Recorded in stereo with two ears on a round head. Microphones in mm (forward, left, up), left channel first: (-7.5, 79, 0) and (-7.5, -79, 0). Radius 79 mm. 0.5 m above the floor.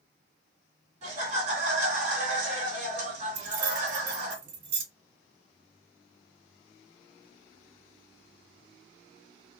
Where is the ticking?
I don't hear ticking.